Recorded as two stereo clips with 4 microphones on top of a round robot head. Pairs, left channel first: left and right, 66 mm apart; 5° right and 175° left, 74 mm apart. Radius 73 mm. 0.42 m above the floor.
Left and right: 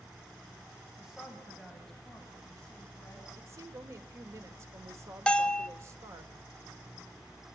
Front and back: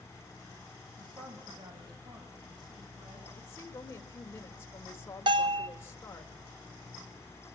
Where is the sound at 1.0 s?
170° right, 3 m; by 3.3 s 165° left, 4.5 m.